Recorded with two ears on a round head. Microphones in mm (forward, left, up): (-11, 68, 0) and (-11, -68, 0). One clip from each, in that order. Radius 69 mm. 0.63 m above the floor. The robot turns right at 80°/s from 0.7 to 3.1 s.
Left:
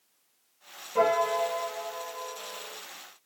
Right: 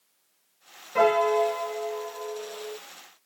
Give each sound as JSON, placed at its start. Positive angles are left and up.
{"t": 0.9, "sound": "a piano", "azimuth_deg": -115, "distance_m": 1.7}